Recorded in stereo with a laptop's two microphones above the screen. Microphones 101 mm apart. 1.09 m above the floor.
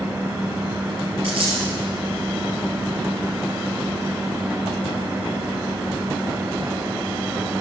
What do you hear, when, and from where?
0.0 s a fan: 25° right (ahead or behind), 0.9 m
1.2 s a dropped coin: 60° right (ahead or behind), 3.5 m